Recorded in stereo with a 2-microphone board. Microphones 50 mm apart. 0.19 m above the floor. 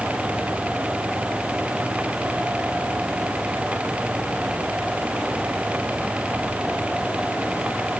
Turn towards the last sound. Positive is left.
No sound to turn to.